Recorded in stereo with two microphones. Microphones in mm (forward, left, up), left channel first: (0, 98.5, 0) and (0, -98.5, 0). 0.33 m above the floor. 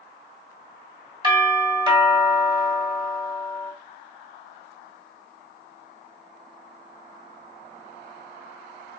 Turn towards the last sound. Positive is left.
turn(degrees=-25)  # may be behind; listen again after turning